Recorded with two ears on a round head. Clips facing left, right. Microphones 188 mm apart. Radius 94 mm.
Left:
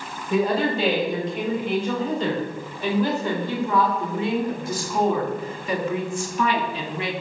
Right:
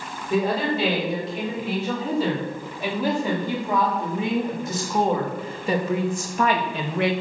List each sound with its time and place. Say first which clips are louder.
0.3 s a woman speaking: left 1 dB; centre (ahead or behind), 6 m; by 7.1 s 50° right (ahead or behind), 1.9 m